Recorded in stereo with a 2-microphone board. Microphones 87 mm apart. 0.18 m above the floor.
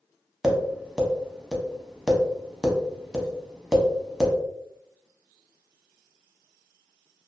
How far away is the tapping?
About 0.7 m.